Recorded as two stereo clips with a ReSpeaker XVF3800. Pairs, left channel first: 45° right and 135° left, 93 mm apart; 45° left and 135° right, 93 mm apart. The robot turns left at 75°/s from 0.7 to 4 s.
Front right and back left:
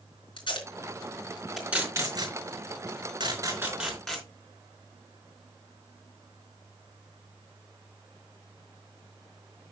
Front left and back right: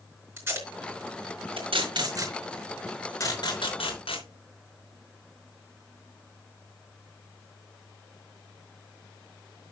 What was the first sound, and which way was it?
Tape being pulled, 70° right.